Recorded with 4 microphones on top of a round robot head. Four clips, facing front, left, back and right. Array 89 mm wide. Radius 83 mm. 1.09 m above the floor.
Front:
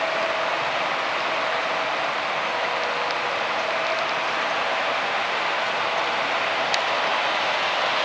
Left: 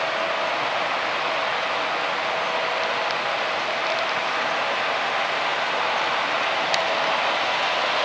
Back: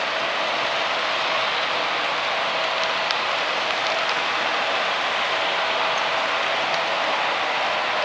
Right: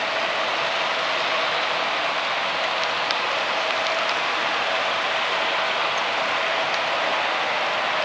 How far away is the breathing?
I don't hear breathing.